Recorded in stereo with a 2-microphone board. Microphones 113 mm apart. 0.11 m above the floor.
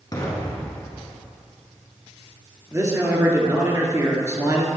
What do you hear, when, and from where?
0.1 s an explosion: 35° left (ahead or behind), 1.8 m
2.7 s a man speaking: 25° right (ahead or behind), 1.5 m